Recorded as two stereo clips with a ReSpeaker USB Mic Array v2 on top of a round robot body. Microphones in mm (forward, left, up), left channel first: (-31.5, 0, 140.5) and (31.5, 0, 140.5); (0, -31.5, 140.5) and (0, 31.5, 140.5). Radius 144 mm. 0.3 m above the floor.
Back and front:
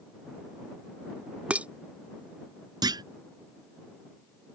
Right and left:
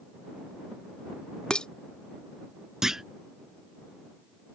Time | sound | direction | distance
1.5 | dishes clattering | 35° right | ?
2.8 | a clunk | 5° left | ?